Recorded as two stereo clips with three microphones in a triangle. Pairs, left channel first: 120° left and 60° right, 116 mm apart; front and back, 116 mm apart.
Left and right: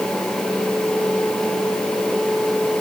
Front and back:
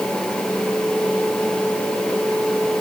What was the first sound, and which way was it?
Only background noise.